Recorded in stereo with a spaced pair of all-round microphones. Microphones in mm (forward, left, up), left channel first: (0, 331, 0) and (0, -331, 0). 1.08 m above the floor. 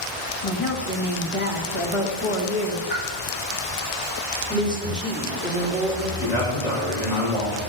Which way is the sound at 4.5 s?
5° right (ahead or behind).